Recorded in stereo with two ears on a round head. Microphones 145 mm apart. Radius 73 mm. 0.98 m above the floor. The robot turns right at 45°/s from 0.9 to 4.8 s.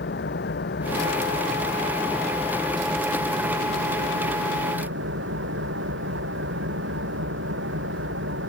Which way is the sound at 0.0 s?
105° left.